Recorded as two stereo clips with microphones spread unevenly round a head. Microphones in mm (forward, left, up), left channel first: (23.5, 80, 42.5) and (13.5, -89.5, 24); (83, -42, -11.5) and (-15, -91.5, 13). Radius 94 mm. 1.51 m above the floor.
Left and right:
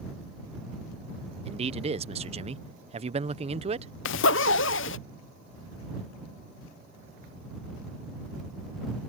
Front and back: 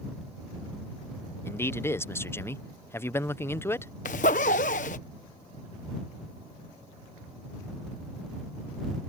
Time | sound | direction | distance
1.4 | a man speaking | 40° right | ?
4.0 | a zipper | 75° left | ?